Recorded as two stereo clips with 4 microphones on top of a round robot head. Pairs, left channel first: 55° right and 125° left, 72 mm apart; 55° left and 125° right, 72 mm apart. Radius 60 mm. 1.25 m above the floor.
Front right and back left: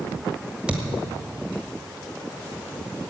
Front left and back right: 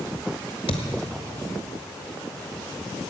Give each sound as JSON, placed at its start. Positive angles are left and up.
{"t": 0.7, "sound": "a thud", "azimuth_deg": 45, "distance_m": 1.6}